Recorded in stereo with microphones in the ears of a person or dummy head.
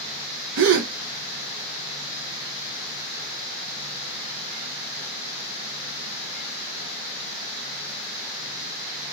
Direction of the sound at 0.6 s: 65° right (ahead or behind).